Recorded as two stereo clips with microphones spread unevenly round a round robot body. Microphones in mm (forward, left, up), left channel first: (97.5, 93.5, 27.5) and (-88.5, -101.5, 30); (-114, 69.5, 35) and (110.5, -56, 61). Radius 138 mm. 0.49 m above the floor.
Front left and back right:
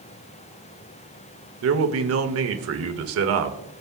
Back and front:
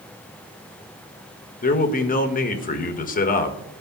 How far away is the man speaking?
About 1.4 m.